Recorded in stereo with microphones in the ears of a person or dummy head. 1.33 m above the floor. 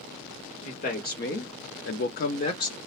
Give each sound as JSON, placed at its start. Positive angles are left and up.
{"t": 0.7, "sound": "a man speaking", "side_deg": 40, "distance_m": 1.2}